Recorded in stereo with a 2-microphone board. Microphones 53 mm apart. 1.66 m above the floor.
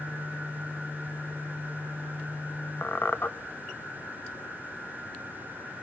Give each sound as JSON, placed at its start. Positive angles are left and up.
{"t": 2.8, "sound": "a squeak", "side_deg": 45, "distance_m": 0.8}